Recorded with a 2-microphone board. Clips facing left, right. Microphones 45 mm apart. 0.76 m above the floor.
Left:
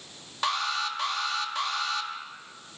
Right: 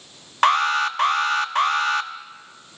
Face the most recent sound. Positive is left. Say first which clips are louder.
# right 10 dB
turn(degrees=-50)  # may be behind; listen again after turning